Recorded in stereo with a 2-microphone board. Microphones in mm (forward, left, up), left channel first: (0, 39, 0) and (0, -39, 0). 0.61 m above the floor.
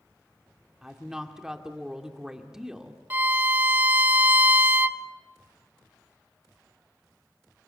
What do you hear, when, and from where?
0.8 s a woman speaking: 5° right (ahead or behind), 1.8 m
3.1 s a violin: 25° right (ahead or behind), 0.6 m